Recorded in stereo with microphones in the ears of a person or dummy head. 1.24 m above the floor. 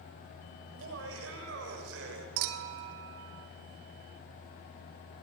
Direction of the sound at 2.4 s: 75° right (ahead or behind).